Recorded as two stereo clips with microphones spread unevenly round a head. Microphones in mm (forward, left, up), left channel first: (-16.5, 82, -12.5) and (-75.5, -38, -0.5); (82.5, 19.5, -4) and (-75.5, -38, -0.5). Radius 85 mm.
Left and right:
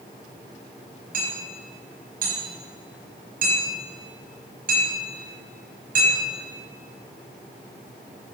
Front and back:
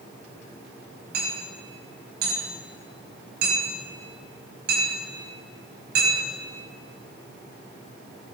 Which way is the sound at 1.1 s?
125° right.